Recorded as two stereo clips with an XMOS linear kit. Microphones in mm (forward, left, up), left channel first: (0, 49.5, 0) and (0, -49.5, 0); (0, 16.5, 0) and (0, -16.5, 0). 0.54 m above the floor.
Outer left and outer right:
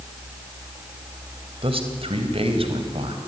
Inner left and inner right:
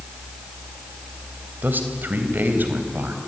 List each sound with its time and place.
1.6 s a man speaking: 70° right (ahead or behind), 3 m